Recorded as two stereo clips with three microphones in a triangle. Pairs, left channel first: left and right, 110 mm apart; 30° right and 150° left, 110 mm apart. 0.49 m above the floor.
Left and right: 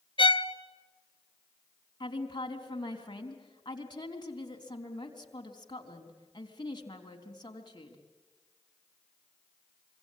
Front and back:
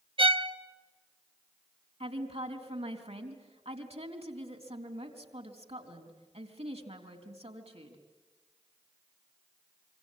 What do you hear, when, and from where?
0.2 s a violin: 120° left, 1.0 m
2.0 s a woman speaking: 135° left, 3.5 m